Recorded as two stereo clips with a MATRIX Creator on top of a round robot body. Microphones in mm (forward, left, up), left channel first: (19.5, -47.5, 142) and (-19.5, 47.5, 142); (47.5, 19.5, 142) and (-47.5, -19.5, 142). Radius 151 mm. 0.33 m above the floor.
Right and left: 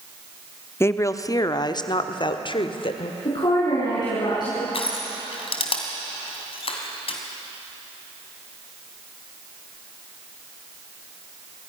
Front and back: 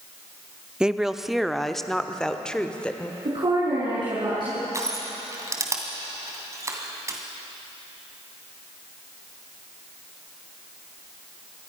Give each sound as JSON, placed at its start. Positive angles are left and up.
{"t": 0.8, "sound": "a woman speaking", "azimuth_deg": -85, "distance_m": 1.1}
{"t": 3.2, "sound": "a woman speaking", "azimuth_deg": -115, "distance_m": 5.5}
{"t": 4.7, "sound": "crushing", "azimuth_deg": -95, "distance_m": 2.5}